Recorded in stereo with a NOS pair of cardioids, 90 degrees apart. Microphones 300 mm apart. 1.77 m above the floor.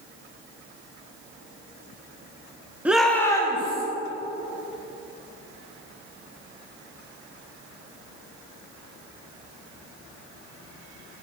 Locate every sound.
2.9 s a shout: 5° right, 1.5 m; by 3.9 s 20° left, 2.5 m